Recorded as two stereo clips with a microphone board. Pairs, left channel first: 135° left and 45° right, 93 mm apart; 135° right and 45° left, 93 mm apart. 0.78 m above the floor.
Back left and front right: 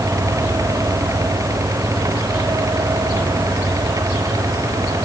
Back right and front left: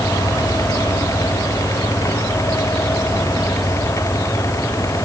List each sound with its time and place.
Only background noise.